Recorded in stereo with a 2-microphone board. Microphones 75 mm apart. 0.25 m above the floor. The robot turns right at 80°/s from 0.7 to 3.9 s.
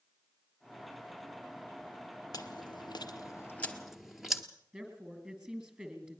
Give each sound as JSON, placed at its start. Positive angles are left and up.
{"t": 2.3, "sound": "chewing", "side_deg": 55, "distance_m": 1.2}
{"t": 4.7, "sound": "a woman speaking", "side_deg": -15, "distance_m": 3.5}